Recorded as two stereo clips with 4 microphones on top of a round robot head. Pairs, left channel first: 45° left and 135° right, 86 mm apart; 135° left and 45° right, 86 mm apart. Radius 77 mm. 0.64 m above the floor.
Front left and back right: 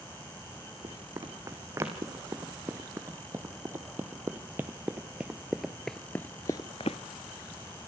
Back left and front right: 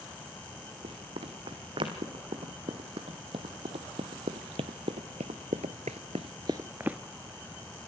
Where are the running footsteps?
75° right, 3.5 m; by 7.0 s 35° left, 0.7 m.